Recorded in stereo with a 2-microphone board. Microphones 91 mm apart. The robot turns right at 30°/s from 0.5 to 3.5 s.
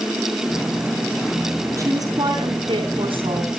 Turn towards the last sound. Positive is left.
turn(degrees=-90)